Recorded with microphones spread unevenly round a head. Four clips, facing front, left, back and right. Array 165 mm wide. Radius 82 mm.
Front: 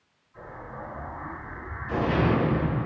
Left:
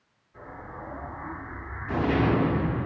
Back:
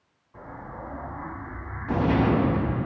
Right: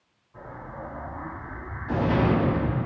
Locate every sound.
0.3 s an explosion: 160° right, 6.5 m